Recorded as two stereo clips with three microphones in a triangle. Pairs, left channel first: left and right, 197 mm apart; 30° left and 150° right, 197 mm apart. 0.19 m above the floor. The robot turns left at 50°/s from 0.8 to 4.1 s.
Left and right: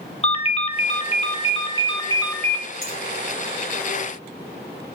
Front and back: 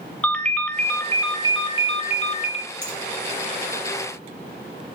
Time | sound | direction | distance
0.2 | a ringtone | 105° left | 0.5 m
2.8 | a finger snap | 120° right | 3.5 m